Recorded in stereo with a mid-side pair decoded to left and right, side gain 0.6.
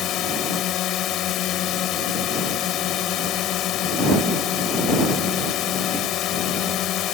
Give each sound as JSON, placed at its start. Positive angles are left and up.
{"t": 0.0, "sound": "a drone", "azimuth_deg": 60}